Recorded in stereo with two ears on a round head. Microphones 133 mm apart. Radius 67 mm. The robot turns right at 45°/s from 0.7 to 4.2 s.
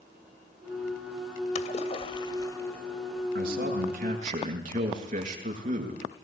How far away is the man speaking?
About 7 m.